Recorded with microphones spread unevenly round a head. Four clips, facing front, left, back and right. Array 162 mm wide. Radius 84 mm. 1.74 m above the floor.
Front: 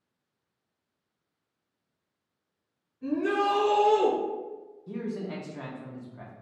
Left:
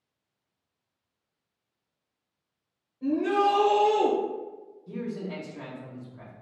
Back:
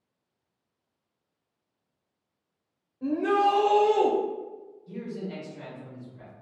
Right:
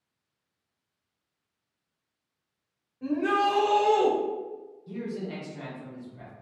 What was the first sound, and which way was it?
A shout, 175° right.